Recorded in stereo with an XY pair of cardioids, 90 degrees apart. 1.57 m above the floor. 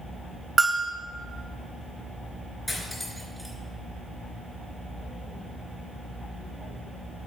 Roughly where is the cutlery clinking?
Ahead.